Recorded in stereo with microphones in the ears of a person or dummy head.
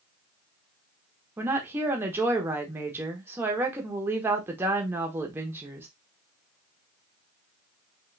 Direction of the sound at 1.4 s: 10° right (ahead or behind).